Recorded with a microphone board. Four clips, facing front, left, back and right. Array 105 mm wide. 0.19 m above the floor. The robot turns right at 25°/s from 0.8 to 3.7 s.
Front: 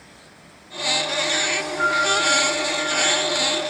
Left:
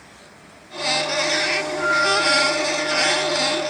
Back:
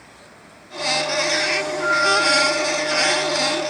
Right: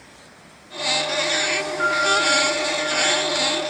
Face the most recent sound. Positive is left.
turn(degrees=95)